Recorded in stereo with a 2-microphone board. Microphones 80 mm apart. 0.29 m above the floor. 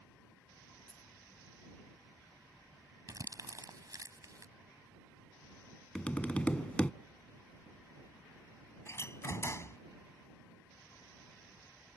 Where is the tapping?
15° left (ahead or behind).